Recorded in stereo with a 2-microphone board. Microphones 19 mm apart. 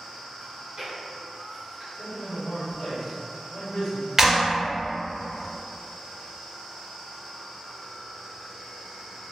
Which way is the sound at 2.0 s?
60° left (ahead or behind).